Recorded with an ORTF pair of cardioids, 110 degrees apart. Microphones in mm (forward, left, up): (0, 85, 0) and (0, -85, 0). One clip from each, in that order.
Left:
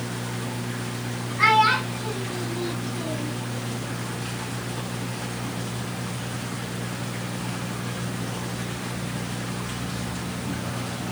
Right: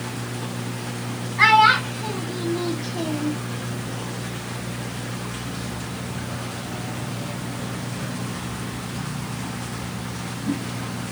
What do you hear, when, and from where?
1.4 s a child speaking: 40° right, 2.5 m; by 3.3 s 75° right, 1.1 m